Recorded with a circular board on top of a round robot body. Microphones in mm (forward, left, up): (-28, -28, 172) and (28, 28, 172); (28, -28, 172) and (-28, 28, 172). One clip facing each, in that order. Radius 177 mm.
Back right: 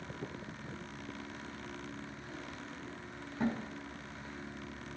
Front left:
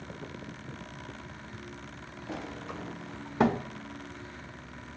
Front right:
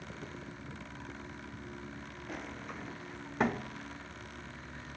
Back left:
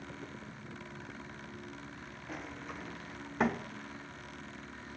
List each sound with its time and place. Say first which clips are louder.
2.3 s a sliding door: front left 7 dB, even; 45° left, 0.8 m